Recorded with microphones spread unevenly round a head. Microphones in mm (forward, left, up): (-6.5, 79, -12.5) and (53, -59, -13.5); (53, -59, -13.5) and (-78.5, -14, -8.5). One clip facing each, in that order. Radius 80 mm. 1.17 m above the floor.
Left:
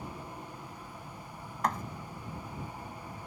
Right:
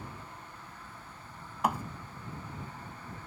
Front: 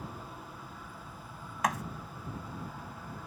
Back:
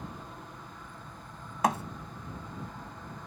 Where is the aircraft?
75° left.